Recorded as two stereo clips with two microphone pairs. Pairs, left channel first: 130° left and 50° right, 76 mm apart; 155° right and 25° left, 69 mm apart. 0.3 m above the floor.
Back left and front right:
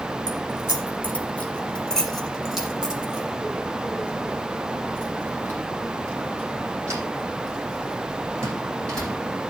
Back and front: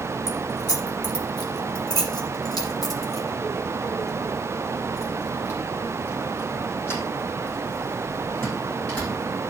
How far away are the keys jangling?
About 3 m.